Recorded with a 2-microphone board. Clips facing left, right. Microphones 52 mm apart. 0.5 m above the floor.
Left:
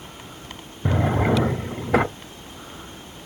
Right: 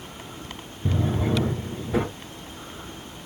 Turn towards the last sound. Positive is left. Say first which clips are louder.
# left 4 dB
turn(degrees=75)  # may be behind; listen again after turning